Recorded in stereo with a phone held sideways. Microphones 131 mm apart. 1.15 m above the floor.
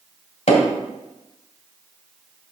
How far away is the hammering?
About 1.9 m.